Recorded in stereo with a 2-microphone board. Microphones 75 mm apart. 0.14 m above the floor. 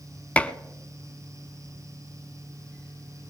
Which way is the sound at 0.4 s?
20° left (ahead or behind).